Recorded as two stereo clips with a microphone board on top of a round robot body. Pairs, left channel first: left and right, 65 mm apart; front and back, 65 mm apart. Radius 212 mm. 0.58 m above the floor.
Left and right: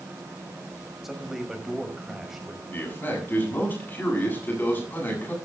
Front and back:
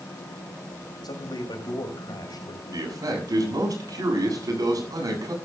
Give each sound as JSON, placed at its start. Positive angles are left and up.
{"t": 1.0, "sound": "a man speaking", "azimuth_deg": -5, "distance_m": 5.0}
{"t": 2.7, "sound": "a man speaking", "azimuth_deg": 150, "distance_m": 8.0}